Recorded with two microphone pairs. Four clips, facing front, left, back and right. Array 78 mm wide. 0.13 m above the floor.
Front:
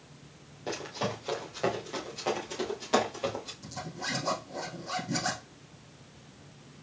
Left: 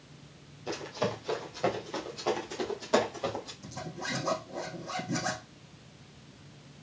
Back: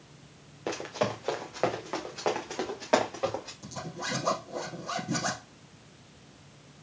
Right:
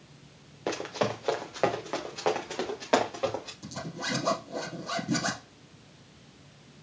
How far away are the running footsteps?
About 1.8 m.